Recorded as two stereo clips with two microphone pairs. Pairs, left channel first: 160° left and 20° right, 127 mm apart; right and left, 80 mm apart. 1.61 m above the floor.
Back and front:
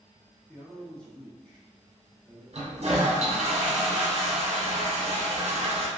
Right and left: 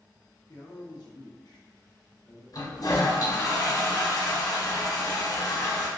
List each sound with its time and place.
0.5 s a man speaking: 125° right, 0.9 m
2.5 s a toilet flushing: 60° right, 0.8 m